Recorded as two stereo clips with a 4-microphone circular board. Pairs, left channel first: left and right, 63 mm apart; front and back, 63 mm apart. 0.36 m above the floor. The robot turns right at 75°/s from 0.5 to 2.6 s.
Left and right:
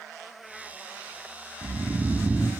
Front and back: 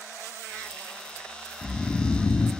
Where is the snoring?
70° right, 1.1 m; by 2.5 s straight ahead, 1.1 m.